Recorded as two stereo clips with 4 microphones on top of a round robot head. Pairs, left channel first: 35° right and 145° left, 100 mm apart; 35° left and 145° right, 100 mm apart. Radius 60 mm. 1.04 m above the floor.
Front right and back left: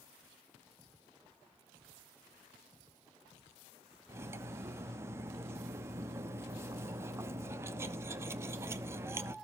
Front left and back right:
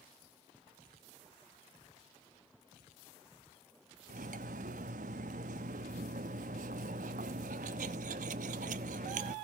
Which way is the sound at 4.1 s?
150° right.